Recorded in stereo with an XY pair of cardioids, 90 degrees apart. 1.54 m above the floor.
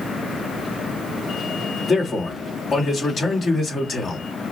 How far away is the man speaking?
About 2 m.